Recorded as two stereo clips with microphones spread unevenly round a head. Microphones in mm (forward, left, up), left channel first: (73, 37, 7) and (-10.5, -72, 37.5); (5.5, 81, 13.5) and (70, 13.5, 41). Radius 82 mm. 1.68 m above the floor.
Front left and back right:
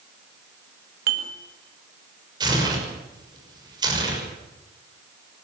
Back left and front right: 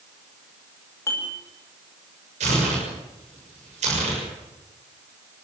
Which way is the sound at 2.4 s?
70° right.